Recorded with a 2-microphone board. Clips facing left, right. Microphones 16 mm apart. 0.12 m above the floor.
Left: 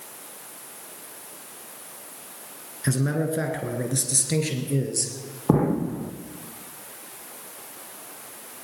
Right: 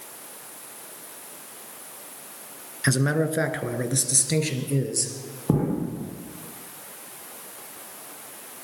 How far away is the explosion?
About 1.5 m.